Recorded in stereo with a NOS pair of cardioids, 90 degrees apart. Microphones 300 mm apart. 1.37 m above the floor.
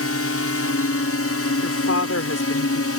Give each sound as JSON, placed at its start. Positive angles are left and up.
{"t": 0.0, "sound": "a drone", "azimuth_deg": 50}
{"t": 1.6, "sound": "a woman speaking", "azimuth_deg": 55}